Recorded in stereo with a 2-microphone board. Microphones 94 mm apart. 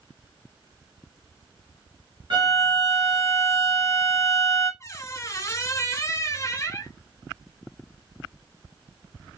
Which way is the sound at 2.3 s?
55° right (ahead or behind).